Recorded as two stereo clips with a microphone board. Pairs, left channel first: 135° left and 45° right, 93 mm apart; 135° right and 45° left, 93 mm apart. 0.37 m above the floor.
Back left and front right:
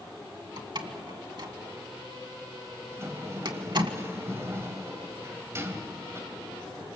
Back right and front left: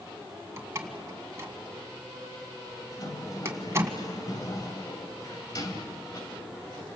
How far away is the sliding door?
About 2.5 m.